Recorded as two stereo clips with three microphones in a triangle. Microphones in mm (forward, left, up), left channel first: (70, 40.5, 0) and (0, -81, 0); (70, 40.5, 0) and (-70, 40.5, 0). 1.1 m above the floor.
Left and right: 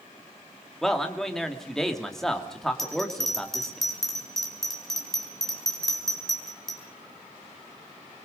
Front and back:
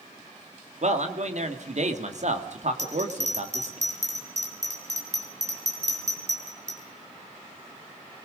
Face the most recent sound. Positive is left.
turn(degrees=145)